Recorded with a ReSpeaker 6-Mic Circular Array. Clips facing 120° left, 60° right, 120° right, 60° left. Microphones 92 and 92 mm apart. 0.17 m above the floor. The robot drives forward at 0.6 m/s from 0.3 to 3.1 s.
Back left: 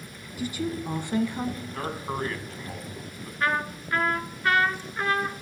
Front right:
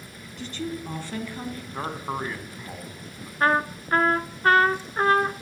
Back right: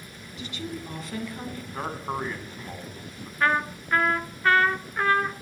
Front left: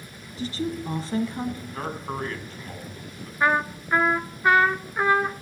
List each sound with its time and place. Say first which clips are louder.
0.4 s a woman speaking: back left 2 dB, front left 7 dB; 45° left, 1.6 m; by 1.6 s 90° left, 1.4 m
1.7 s a man speaking: front right 4 dB, even; 45° right, 1.7 m; by 3.3 s 135° right, 1.7 m
3.4 s a trumpet: front right 5 dB, front left 2 dB; 15° right, 0.7 m